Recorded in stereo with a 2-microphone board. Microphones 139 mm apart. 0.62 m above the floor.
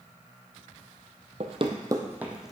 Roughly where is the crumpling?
I don't hear crumpling.